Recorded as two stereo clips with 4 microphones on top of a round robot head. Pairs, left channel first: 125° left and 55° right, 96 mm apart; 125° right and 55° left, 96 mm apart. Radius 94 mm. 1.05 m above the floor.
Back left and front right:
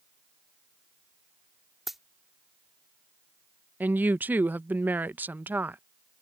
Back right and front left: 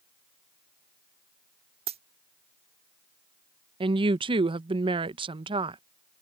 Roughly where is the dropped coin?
Ahead left.